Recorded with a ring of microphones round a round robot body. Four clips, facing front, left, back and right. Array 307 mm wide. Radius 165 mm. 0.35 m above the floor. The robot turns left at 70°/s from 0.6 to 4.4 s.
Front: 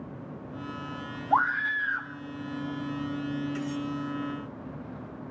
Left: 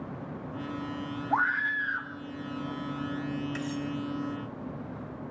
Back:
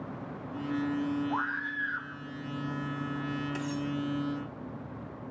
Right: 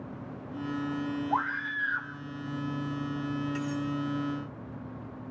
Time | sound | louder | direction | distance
1.3 | a scream | left 7 dB, front 8 dB | 15° right | 1.8 m
3.5 | cutlery clinking | right 1 dB, front 2 dB | 155° left | 2 m